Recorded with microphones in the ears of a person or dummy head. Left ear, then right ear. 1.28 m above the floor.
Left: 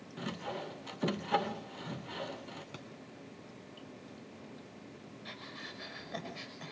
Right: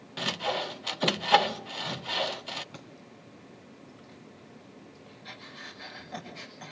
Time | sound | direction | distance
0.2 | sawing | 20° right (ahead or behind) | 0.5 m
2.7 | a thud | 5° left (ahead or behind) | 2.5 m
5.2 | breathing | centre (ahead or behind) | 6 m